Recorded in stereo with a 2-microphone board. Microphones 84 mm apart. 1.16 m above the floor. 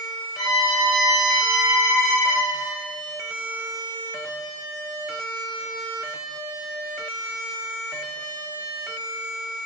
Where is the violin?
55° left (ahead or behind), 0.8 m.